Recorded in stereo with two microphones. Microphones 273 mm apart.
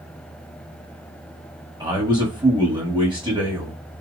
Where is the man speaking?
15° right (ahead or behind), 1.1 m.